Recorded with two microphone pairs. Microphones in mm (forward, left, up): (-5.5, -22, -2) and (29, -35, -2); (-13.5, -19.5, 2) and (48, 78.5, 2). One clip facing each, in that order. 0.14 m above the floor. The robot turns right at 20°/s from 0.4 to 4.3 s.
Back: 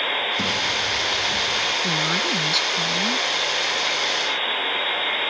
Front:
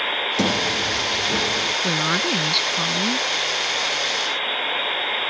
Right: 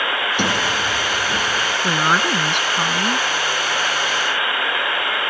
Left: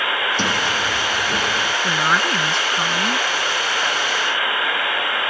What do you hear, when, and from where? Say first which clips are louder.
0.4 s a sliding door: front 2 dB, right 1 dB; 45° right; by 1.7 s 20° right
1.8 s a woman speaking: front 1 dB, right 2 dB; 75° right; by 3.3 s 45° right